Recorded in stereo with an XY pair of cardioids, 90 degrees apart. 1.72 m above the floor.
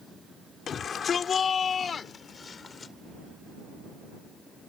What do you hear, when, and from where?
0.7 s a shout: 55° left; by 2.9 s 40° left